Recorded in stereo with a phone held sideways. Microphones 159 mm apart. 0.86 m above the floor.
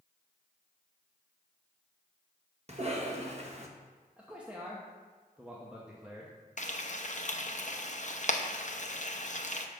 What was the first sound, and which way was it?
A cough, 45° right (ahead or behind).